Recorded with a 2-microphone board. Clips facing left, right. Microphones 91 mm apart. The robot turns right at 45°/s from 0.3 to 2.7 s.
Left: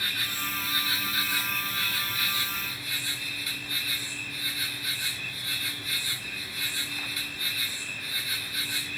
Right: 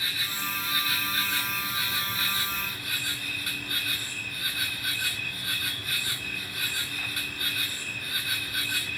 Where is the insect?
125° left, 1.7 m; by 9.0 s 125° right, 1.7 m.